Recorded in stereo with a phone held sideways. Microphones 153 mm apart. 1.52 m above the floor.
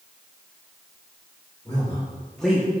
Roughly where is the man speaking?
Left.